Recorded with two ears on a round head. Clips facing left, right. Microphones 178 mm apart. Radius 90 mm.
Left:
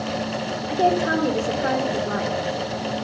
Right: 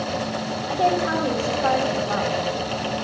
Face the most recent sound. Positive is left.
turn(degrees=25)  # may be behind; listen again after turning